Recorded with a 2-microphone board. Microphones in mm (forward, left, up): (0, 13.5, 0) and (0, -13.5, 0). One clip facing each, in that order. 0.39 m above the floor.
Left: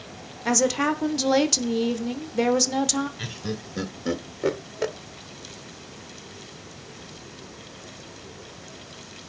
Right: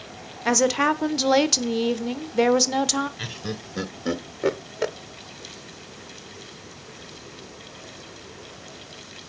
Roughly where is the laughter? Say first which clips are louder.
Even; centre.